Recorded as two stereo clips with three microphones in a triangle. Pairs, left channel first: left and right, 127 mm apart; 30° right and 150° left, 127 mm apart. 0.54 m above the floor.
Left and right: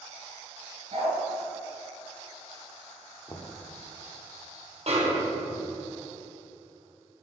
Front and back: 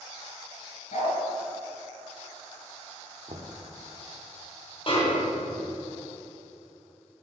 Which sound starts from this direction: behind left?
Knocking, at 3.3 s.